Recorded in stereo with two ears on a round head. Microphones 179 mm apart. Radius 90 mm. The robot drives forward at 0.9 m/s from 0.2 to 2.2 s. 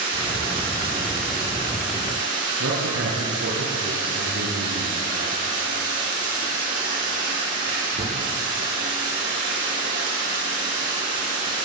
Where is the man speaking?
75° right (ahead or behind), 7 m.